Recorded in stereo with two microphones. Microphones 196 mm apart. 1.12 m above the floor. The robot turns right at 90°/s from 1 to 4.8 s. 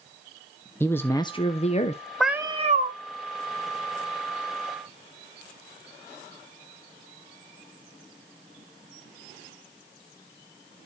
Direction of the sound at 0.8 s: 20° left.